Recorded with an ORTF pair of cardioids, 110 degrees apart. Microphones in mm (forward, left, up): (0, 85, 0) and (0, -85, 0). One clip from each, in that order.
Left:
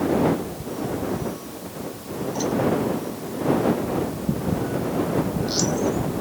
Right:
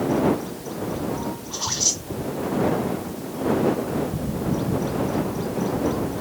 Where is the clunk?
No clunk in this recording.